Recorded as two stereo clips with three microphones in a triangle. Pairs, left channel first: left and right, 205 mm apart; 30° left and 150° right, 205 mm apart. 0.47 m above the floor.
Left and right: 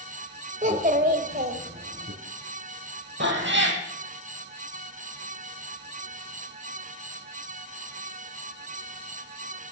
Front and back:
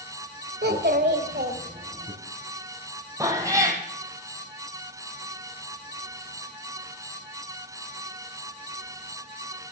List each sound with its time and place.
0.6 s a child speaking: 135° right, 1.5 m; by 2.1 s 110° right, 2.5 m
3.2 s a cat meowing: 75° right, 2.5 m